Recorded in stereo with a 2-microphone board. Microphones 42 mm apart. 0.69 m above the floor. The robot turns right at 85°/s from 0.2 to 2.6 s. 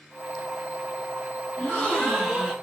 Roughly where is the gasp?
Behind left.